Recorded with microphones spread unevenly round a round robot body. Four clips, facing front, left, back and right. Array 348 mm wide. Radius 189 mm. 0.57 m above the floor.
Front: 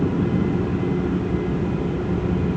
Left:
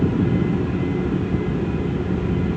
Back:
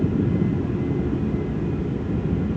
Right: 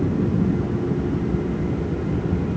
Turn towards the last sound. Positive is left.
No sound to turn to.